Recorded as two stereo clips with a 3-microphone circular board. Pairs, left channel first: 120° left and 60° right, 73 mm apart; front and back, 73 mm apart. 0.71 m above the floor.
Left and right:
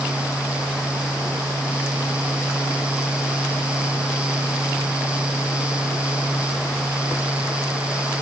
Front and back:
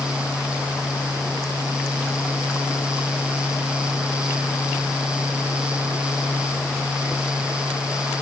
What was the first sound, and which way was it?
Only background noise.